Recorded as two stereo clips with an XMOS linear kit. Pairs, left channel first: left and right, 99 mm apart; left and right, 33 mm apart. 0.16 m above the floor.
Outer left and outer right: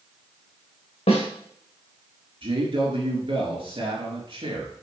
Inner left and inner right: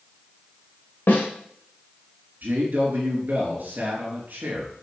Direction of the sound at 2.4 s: 60° right (ahead or behind).